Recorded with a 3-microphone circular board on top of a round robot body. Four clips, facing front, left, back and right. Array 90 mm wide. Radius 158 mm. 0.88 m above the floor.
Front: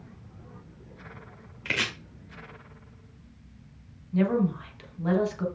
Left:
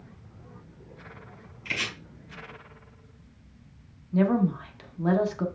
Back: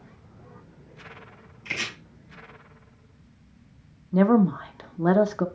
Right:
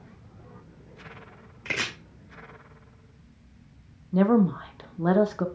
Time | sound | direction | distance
1.6 | chopping | 60° right | 1.9 m
4.1 | a woman speaking | 155° right | 1.1 m